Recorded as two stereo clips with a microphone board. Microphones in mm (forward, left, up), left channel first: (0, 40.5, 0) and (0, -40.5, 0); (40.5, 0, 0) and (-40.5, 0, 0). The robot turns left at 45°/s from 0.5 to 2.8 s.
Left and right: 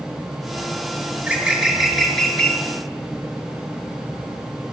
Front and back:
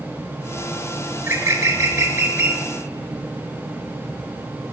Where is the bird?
140° right, 0.7 m; by 2.6 s 150° left, 0.7 m.